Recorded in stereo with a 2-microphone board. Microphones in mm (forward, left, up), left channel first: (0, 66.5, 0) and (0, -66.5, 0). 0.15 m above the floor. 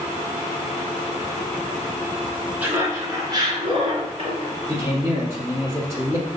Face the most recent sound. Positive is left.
turn(degrees=-20)  # may be behind; listen again after turning